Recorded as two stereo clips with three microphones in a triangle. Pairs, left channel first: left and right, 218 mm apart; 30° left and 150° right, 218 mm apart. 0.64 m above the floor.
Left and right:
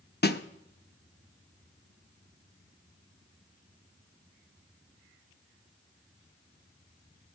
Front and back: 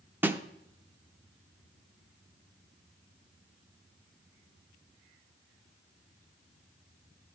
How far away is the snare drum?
About 0.6 m.